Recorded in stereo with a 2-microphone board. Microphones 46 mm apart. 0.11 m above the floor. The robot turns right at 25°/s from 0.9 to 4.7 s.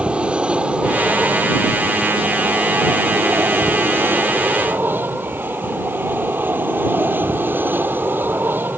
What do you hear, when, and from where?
0.0 s an aircraft: 150° right; by 8.8 s 55° right